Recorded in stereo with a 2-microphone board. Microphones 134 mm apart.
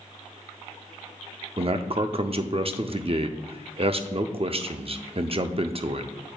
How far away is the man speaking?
About 0.5 m.